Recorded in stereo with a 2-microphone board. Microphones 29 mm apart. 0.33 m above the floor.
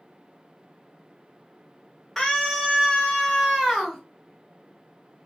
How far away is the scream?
About 1.2 m.